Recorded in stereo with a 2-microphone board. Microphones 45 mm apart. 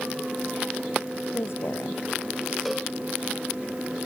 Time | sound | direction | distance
1.3 | a woman speaking | 75° left (ahead or behind) | ?
2.6 | a cowbell | 5° left (ahead or behind) | ?